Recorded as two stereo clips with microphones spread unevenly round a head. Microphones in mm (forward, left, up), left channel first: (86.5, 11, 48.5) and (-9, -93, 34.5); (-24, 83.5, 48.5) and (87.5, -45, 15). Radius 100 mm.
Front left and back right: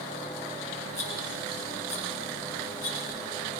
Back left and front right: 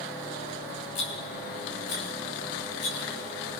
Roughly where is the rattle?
Behind left.